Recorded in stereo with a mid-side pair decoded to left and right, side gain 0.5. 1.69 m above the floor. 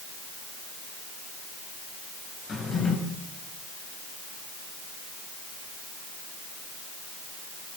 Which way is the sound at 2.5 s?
40° left.